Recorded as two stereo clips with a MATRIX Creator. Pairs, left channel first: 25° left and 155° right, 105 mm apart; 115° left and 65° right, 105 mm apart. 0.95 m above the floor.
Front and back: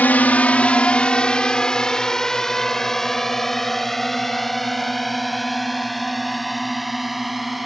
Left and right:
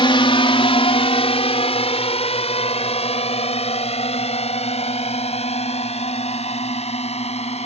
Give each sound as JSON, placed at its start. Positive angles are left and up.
{"t": 0.0, "sound": "a drone", "azimuth_deg": 95}